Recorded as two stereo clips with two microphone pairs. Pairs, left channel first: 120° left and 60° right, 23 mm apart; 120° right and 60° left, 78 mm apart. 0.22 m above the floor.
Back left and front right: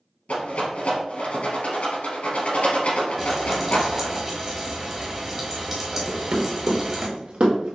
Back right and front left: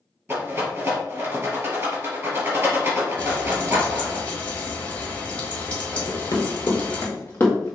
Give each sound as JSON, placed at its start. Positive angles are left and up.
{"t": 0.3, "sound": "a rattle", "azimuth_deg": 125, "distance_m": 2.5}
{"t": 3.2, "sound": "frying", "azimuth_deg": -90, "distance_m": 1.5}
{"t": 6.1, "sound": "running footsteps", "azimuth_deg": -75, "distance_m": 1.9}